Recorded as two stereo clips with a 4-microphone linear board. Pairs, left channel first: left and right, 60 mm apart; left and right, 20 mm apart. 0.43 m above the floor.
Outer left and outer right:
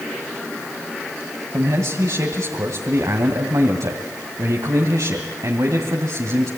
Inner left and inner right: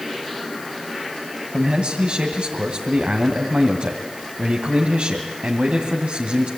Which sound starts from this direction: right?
A man speaking, at 1.5 s.